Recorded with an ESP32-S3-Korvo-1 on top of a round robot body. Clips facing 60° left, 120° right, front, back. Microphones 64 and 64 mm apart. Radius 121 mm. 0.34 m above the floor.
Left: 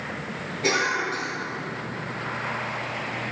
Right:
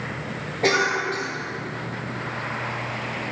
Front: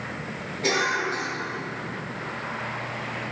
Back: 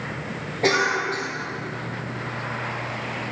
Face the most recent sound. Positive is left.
turn(degrees=-145)